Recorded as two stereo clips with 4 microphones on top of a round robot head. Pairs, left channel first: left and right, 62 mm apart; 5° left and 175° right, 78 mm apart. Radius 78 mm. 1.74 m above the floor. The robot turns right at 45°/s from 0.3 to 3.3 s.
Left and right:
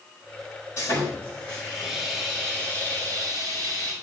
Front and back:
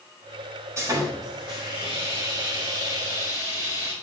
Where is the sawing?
135° left, 4 m; by 3.9 s 110° right, 4 m.